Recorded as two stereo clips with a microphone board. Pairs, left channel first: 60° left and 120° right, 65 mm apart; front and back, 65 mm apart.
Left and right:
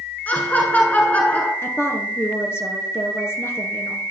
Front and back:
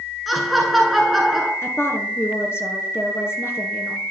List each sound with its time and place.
0.3 s laughter: 90° left, 1.2 m
1.6 s a woman speaking: 30° left, 1.9 m